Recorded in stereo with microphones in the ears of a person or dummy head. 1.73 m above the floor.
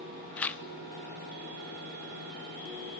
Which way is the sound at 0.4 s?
5° left (ahead or behind).